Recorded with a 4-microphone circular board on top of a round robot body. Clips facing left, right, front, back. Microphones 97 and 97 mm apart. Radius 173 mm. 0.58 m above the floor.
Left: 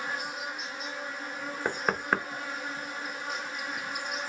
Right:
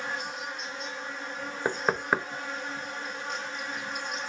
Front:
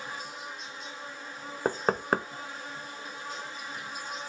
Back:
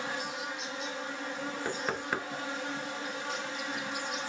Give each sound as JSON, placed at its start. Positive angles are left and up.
{"t": 0.0, "sound": "an insect", "azimuth_deg": 175, "distance_m": 0.9}
{"t": 1.6, "sound": "knocking", "azimuth_deg": -10, "distance_m": 0.7}